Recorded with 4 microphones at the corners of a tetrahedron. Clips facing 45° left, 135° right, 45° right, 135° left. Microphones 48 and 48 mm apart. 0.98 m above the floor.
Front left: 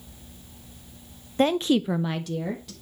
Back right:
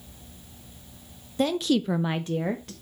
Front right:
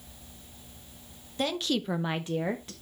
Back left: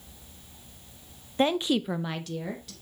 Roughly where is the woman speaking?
Left.